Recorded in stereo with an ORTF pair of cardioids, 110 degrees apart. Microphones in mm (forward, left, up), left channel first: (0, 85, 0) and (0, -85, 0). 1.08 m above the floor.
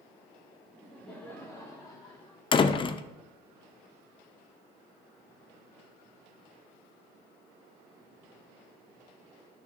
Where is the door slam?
30° left, 0.5 m.